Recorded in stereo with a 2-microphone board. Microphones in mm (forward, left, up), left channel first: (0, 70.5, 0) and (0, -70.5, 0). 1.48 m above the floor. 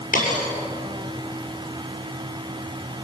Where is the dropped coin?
80° left, 7 m.